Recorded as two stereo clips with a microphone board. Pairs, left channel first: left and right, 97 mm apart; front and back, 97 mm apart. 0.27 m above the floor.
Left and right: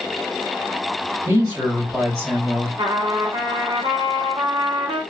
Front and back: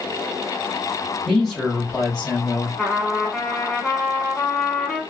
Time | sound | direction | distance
1.2 | a man speaking | 95° right | 2 m
2.8 | a trumpet | 80° right | 0.9 m